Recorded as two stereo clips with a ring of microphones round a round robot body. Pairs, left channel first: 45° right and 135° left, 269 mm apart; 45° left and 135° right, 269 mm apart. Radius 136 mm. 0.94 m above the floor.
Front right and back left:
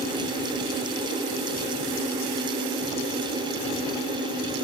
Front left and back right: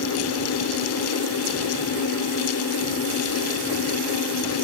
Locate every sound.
Only background noise.